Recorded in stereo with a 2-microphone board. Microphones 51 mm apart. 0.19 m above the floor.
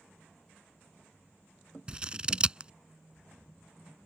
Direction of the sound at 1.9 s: 20° right (ahead or behind).